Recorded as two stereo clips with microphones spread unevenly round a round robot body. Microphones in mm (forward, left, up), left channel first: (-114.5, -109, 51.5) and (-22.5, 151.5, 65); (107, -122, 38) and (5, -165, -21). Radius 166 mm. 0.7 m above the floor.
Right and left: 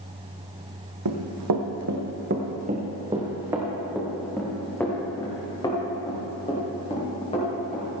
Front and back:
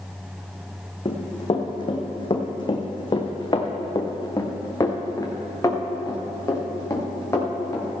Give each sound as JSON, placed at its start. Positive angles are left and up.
{"t": 1.1, "sound": "running footsteps", "azimuth_deg": 55, "distance_m": 1.5}